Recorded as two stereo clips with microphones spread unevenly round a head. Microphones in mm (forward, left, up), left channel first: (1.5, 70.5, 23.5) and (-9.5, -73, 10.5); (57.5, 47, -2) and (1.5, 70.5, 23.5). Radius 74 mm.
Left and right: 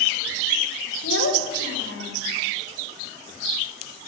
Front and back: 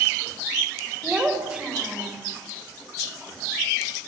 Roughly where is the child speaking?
Left.